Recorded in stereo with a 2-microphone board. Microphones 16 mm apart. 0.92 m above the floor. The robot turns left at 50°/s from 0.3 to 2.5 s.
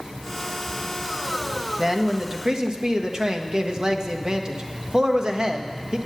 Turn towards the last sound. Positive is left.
turn(degrees=-60)